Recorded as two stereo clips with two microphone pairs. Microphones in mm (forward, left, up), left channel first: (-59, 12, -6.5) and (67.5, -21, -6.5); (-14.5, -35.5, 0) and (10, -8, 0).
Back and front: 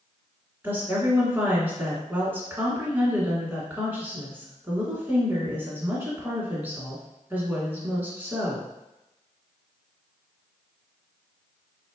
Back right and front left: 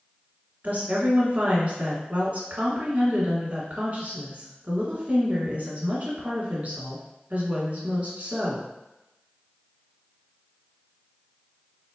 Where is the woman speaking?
55° left, 1.7 m.